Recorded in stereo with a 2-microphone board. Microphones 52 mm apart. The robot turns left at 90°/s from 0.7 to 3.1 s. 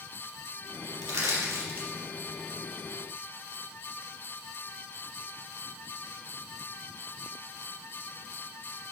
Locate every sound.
1.0 s crushing: 75° right (ahead or behind), 4 m; by 1.9 s 25° right (ahead or behind), 4 m